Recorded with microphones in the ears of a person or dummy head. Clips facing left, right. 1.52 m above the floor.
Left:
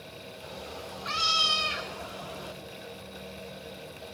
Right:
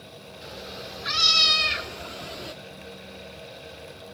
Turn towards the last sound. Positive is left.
turn(degrees=-30)  # may be behind; listen again after turning